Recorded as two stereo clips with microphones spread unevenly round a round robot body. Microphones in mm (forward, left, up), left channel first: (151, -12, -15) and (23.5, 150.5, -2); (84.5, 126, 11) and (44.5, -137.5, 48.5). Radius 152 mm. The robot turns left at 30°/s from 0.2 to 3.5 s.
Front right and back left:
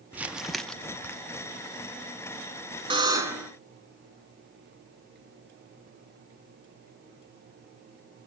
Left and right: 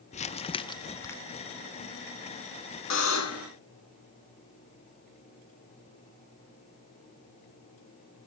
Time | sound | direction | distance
0.1 | crumpling | 45° left | 0.5 m
2.9 | a buzzer | 60° left | 2.5 m